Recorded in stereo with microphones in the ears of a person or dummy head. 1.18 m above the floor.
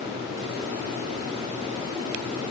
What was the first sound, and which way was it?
Only background noise.